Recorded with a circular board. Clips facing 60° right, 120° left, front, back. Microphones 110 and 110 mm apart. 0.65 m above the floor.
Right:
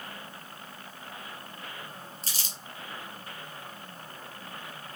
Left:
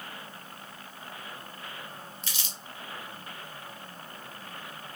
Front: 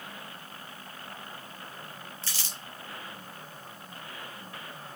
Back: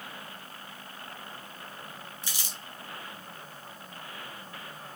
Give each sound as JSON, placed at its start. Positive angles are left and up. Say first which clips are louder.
{"t": 2.2, "sound": "crumpling", "louder": "even, even", "azimuth_deg": -105, "distance_m": 2.0}